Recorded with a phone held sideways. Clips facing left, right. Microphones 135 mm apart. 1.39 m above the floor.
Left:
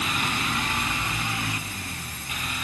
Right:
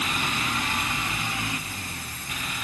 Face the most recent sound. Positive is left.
No sound to turn to.